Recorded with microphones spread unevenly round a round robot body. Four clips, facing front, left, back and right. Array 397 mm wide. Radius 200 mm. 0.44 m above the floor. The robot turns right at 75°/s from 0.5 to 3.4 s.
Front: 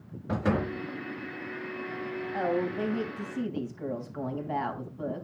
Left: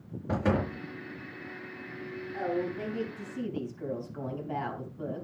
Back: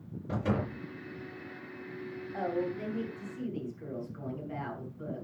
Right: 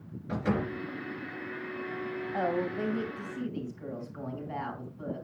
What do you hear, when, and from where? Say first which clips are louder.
0.3 s a door slam: left 2 dB, front 4 dB; 50° left, 4.5 m; by 0.8 s 70° left, 4.5 m
2.3 s a woman speaking: right 1 dB, front 4 dB; 65° right, 4 m; by 5.2 s 15° left, 4 m